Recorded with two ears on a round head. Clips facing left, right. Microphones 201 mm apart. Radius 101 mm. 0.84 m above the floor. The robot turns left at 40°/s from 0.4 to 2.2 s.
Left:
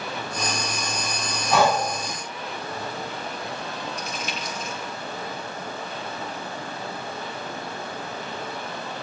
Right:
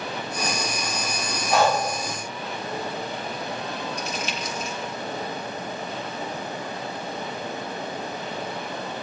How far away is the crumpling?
About 1.7 m.